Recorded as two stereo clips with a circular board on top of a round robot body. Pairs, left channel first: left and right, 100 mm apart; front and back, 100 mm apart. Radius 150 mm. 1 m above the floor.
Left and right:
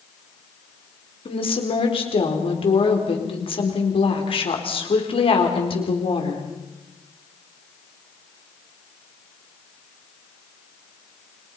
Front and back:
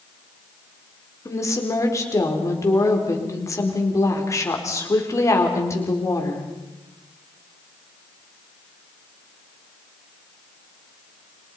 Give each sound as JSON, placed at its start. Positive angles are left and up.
{"t": 1.2, "sound": "a woman speaking", "azimuth_deg": 60, "distance_m": 4.5}